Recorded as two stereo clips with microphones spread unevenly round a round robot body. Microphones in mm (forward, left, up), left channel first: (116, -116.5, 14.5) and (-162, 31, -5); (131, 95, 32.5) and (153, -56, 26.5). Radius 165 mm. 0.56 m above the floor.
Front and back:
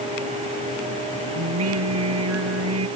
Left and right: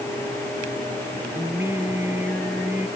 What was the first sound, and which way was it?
Singing, 165° right.